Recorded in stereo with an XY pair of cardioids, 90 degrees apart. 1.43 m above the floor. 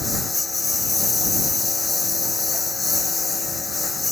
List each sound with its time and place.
0.0 s a lawn mower: 25° left; by 4.1 s 30° left